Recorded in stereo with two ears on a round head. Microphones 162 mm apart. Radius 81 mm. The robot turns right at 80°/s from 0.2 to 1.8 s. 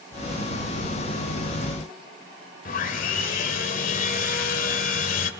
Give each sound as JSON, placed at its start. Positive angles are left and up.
{"t": 2.6, "sound": "sawing", "side_deg": 50, "distance_m": 2.5}